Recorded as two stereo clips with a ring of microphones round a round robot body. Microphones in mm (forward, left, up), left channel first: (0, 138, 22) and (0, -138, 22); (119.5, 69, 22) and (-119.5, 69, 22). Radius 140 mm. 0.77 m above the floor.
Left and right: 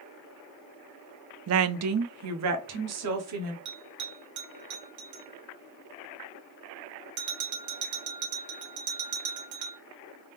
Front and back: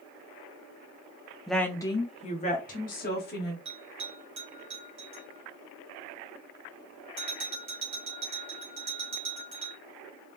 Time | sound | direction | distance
1.5 | a woman speaking | 90° right | 0.5 m
3.6 | a bell | 110° right | 1.1 m